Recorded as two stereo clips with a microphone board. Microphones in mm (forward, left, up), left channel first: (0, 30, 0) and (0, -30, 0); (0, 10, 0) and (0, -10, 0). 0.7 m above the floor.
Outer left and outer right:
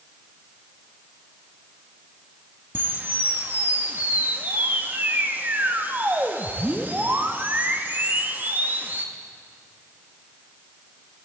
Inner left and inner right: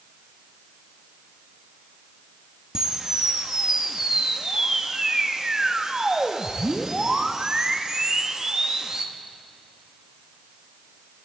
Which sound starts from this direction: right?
A camera shutter, at 2.8 s.